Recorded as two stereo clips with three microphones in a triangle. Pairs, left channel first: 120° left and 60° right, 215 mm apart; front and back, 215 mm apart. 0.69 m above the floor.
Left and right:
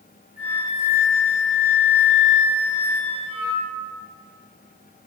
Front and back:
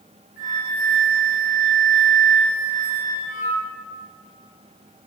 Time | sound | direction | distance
0.4 | a flute | straight behind | 2.0 m